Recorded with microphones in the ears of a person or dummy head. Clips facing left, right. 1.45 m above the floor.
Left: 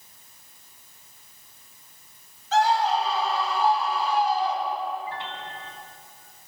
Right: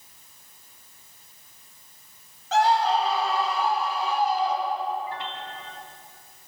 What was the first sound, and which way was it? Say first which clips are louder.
A scream: right 1 dB; 60° right (ahead or behind).